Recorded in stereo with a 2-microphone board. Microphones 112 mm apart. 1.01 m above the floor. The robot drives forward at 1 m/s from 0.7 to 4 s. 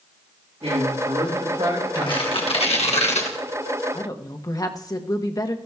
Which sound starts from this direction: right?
A man speaking, at 0.6 s.